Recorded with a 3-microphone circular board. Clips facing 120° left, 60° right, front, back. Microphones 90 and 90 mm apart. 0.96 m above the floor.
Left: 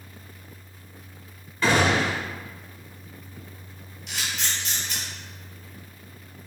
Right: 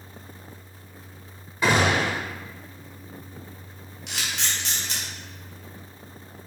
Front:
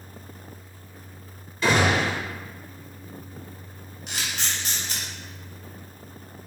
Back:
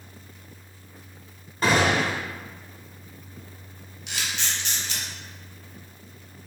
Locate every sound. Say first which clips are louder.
1.6 s a gunshot: even, even; 130° right, 1.7 m
4.1 s a camera shutter: even, even; 45° right, 1.1 m